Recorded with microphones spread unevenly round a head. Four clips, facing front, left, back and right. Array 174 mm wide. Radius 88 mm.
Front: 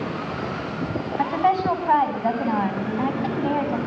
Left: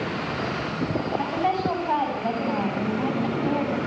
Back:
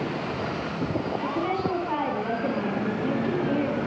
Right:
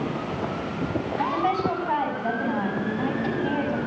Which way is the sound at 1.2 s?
10° left.